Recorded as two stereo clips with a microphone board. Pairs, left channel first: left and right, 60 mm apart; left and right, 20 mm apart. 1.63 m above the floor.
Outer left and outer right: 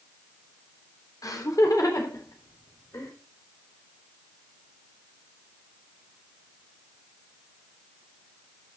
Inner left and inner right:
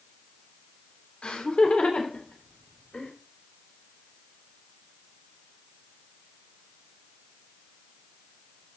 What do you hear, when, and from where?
1.2 s laughter: 80° left, 3 m; by 3.1 s 70° left (ahead or behind), 4 m